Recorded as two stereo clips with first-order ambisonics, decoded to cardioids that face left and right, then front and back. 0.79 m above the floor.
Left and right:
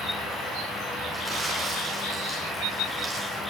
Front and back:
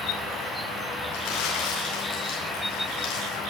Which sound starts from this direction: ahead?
Crumpling, at 1.1 s.